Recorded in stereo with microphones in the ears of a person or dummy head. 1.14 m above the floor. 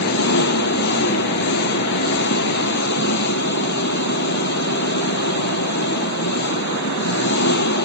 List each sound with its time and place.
0.0 s an engine running: 60° left (ahead or behind)